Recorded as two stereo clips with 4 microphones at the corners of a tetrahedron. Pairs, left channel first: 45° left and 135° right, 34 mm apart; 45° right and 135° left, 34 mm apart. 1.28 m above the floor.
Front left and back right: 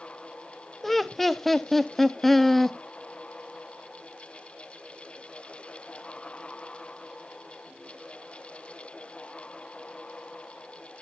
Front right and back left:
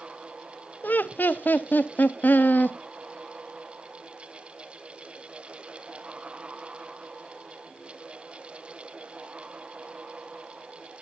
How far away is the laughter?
About 0.6 m.